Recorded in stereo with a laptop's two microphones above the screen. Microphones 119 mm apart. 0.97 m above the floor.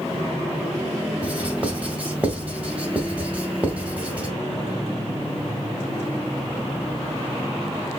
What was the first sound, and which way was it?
Writing, 15° right (ahead or behind).